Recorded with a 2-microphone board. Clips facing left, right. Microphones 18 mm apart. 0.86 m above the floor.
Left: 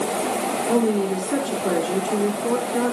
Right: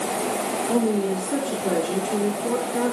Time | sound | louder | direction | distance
0.7 | a woman speaking | left 2 dB | 20° left (ahead or behind) | 3.5 m